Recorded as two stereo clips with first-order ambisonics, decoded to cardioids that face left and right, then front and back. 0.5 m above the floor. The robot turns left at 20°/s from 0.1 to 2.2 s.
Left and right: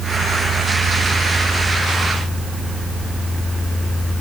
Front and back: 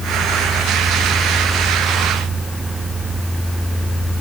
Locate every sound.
Only background noise.